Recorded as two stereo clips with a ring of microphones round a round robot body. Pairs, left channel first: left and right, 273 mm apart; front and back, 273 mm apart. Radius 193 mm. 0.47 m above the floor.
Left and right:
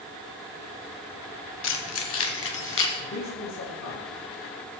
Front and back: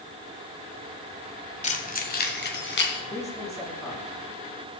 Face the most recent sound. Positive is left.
turn(degrees=75)